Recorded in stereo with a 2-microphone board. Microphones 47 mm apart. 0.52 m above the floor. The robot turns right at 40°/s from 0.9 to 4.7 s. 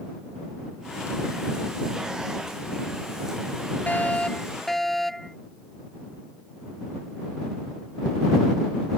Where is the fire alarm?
145° left; by 5.4 s 175° left.